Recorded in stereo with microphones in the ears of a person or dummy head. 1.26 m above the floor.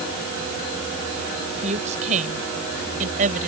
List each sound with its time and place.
1.6 s a woman speaking: 45° right (ahead or behind); by 3.5 s 50° right (ahead or behind)